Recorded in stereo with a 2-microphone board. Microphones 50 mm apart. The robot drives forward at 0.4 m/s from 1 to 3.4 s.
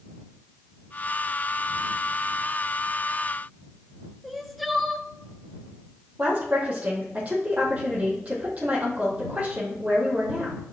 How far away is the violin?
No violin in this recording.